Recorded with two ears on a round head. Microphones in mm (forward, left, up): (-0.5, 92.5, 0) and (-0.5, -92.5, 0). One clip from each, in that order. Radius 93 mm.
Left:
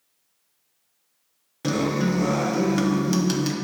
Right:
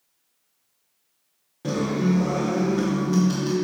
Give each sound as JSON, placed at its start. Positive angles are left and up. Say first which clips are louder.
{"t": 1.6, "sound": "a guitar", "louder": "left 1 dB", "side_deg": 55, "distance_m": 1.0}